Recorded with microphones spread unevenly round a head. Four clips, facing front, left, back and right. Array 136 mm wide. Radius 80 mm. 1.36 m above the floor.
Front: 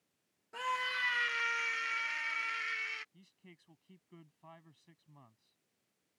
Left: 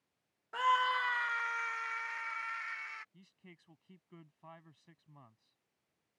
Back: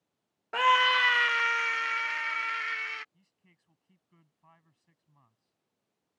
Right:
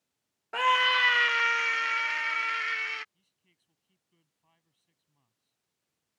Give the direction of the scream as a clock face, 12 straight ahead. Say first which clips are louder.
Right 5 dB, back 13 dB; 5 o'clock.